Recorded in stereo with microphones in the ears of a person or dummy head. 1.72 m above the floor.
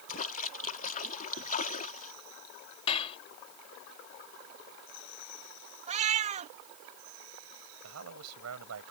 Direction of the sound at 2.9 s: 30° left (ahead or behind).